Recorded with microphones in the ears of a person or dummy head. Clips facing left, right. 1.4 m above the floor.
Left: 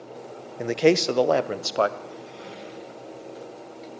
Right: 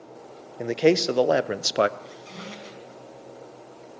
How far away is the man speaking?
About 1.3 m.